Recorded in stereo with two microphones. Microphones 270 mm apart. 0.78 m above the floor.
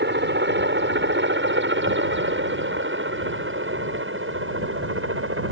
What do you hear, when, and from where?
0.0 s a helicopter: 40° right (ahead or behind); by 5.5 s 50° right (ahead or behind)